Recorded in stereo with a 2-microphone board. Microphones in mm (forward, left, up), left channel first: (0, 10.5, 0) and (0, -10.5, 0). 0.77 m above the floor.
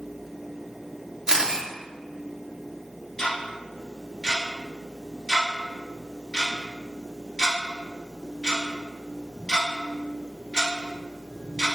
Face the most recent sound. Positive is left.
turn(degrees=35)  # may be behind; listen again after turning